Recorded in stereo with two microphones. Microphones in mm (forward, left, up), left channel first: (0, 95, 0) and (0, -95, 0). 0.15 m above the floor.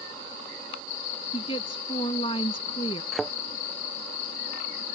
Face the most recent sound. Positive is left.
turn(degrees=0)  # may be behind; listen again after turning